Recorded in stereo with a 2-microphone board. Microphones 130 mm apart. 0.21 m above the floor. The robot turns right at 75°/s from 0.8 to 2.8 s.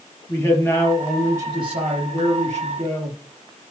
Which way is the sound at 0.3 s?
160° left.